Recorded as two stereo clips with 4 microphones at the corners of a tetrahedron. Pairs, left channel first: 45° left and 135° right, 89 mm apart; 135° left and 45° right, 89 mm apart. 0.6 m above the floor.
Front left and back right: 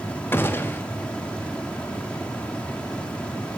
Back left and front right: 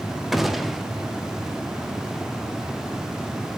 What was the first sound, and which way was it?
A gunshot, 35° left.